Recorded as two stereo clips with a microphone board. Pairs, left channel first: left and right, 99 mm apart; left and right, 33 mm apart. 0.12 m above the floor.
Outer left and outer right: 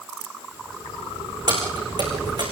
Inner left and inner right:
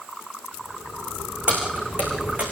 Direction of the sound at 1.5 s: 50° right (ahead or behind).